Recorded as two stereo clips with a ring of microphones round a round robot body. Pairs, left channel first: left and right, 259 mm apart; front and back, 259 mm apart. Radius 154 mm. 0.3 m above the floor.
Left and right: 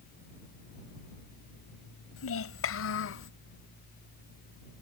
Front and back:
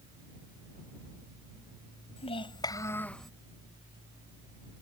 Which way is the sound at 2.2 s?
65° left.